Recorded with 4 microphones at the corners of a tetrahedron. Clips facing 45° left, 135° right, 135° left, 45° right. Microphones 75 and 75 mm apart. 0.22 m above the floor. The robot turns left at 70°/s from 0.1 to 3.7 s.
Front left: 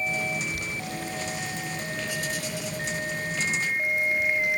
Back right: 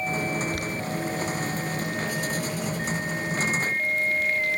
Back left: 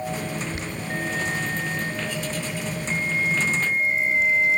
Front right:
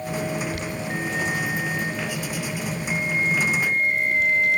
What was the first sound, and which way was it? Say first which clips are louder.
Boiling: back right 4 dB, front right 1 dB; 165° right.